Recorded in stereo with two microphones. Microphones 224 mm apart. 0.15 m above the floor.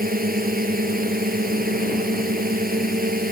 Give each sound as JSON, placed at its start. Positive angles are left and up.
{"t": 0.0, "sound": "a drone", "side_deg": -40}